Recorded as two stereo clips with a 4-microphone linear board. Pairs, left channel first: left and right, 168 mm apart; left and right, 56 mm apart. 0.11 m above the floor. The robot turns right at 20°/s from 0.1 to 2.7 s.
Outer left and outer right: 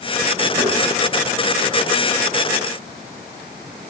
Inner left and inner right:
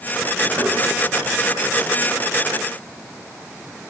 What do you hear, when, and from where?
0.6 s knocking: 20° right (ahead or behind), 5 m